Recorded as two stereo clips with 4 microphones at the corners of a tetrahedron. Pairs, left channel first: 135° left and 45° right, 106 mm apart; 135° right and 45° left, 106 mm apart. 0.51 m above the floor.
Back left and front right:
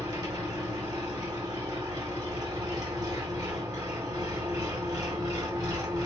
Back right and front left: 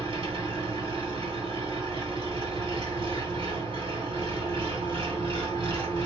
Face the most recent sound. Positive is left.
turn(degrees=10)